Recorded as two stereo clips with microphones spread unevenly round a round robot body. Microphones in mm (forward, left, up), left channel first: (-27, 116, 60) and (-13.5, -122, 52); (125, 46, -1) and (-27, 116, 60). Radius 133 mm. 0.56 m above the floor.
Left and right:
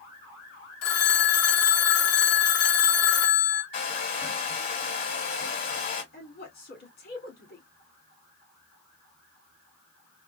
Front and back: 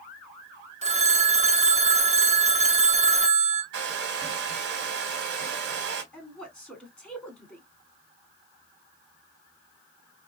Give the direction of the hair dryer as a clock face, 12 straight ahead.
7 o'clock.